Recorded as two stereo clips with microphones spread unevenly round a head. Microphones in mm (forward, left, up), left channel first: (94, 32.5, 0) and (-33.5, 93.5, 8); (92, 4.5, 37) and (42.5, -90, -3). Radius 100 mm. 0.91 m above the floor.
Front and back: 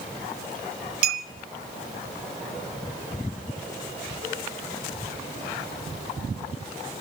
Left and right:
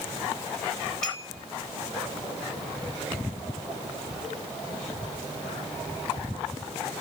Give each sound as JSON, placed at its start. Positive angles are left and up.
{"t": 1.0, "sound": "a clink", "azimuth_deg": 155, "distance_m": 0.6}